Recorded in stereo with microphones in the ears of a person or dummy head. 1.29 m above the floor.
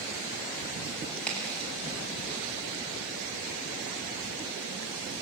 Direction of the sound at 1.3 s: 5° left (ahead or behind).